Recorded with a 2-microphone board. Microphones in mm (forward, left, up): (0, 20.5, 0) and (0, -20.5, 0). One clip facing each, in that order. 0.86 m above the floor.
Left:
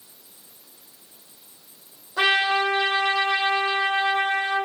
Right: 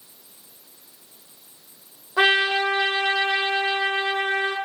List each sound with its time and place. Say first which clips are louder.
2.2 s a trumpet: right 1 dB; 25° right (ahead or behind), 0.9 m